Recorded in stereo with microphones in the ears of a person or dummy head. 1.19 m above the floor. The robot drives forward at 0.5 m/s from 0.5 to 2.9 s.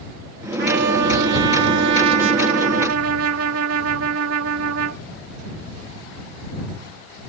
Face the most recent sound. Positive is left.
turn(degrees=-80)